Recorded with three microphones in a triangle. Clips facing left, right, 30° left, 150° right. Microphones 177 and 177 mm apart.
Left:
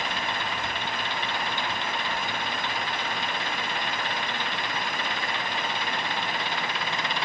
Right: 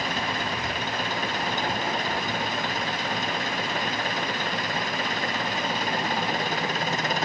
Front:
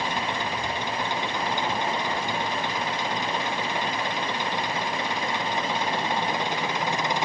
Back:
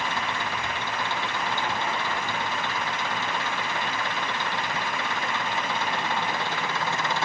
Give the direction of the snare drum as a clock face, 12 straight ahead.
I don't hear a snare drum.